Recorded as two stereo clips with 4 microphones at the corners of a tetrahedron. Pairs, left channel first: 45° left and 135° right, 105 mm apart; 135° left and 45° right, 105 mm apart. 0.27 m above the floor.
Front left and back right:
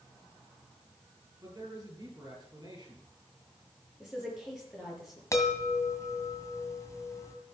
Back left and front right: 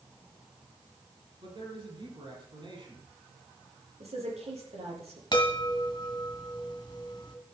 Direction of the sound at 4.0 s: 50° right.